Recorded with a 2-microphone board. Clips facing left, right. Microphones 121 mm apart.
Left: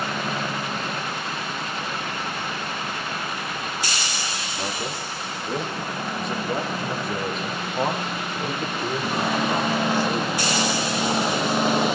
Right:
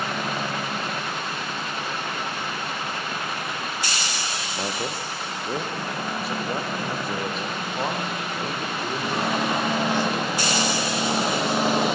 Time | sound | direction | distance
4.5 | a man speaking | 25° right (ahead or behind) | 4 m